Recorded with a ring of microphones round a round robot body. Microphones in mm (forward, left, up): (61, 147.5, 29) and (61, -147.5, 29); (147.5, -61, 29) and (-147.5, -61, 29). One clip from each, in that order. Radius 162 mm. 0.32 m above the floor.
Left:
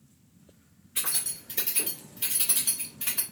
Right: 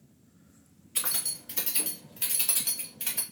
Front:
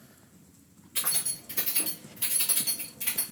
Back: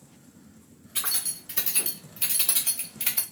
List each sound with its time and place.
0.9 s keys jangling: 115° right, 1.9 m; by 3.2 s 150° right, 1.1 m